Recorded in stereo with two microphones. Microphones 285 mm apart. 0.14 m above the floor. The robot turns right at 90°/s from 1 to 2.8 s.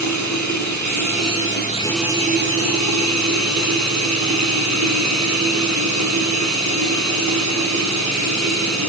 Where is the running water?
90° left, 6 m; by 8.9 s 105° right, 6 m.